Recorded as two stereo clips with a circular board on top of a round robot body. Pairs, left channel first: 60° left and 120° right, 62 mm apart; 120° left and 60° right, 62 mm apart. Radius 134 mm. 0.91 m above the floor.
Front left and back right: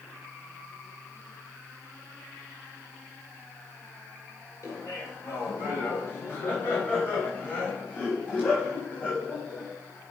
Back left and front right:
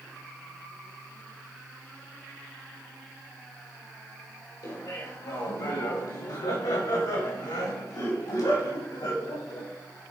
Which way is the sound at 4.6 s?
105° left.